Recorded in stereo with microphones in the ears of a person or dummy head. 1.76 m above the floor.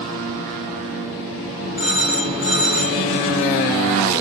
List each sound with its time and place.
1.8 s a phone ringing: 5° right (ahead or behind), 3.5 m